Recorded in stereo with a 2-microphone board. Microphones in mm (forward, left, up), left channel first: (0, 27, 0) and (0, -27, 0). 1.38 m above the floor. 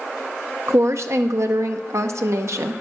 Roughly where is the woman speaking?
Right.